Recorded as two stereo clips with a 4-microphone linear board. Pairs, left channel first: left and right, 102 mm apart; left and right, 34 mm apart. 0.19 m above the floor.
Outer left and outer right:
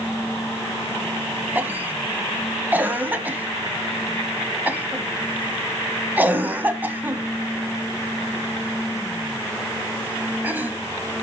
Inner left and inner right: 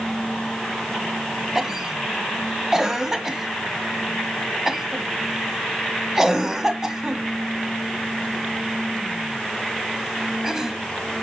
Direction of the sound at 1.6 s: 15° right (ahead or behind).